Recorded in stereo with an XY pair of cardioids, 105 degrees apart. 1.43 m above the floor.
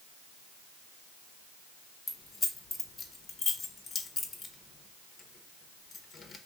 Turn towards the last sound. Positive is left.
turn(degrees=35)